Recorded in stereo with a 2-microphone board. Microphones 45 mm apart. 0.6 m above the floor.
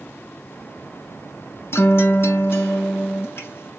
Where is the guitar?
60° left (ahead or behind), 1.0 m.